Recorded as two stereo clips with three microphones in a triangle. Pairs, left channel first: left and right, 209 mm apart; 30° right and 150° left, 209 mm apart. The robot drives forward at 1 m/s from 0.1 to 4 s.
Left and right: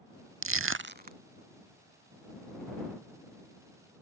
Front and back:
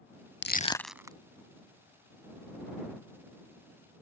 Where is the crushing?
70° right; by 1.2 s 140° right.